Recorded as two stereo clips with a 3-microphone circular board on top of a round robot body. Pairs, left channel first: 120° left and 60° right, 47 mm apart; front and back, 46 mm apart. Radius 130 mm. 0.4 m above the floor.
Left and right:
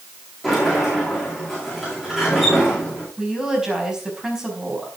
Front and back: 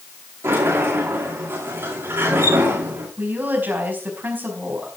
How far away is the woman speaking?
About 5 m.